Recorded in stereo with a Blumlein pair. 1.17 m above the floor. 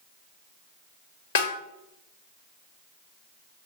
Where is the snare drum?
60° left, 1.2 m.